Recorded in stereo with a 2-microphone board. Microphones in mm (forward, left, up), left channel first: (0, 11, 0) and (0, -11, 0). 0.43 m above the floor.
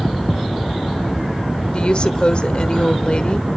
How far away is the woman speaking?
About 1.1 m.